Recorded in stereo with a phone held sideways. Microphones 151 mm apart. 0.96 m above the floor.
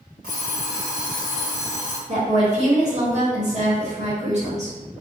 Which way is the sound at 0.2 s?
80° right.